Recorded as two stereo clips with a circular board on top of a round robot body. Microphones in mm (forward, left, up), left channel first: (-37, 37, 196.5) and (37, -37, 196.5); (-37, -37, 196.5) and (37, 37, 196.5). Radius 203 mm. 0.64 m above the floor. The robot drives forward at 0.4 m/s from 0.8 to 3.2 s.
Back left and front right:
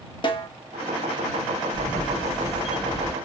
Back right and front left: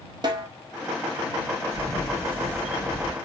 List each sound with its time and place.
0.2 s a snare drum: 95° left, 1.2 m
1.7 s a camera shutter: 105° left, 1.9 m; by 3.1 s 120° left, 2 m